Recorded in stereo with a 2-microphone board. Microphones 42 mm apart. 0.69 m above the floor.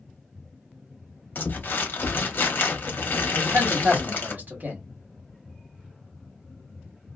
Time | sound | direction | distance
1.4 | crumpling | 55° left (ahead or behind) | 1.1 m
3.3 | a man speaking | 50° right (ahead or behind) | 1.3 m